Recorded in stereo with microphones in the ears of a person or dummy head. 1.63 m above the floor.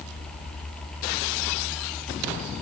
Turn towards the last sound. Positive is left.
No sound to turn to.